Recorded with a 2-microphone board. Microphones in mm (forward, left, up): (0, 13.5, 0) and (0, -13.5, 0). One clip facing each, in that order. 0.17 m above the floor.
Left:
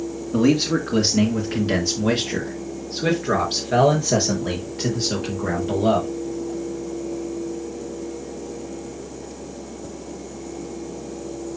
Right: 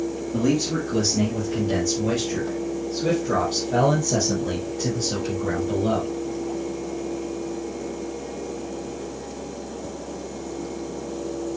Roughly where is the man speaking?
Left.